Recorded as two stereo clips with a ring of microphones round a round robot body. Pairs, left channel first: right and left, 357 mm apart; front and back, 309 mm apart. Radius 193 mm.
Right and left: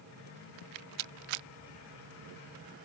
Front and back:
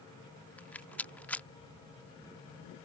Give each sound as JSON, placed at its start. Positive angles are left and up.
{"t": 0.6, "sound": "a rattle", "azimuth_deg": 85}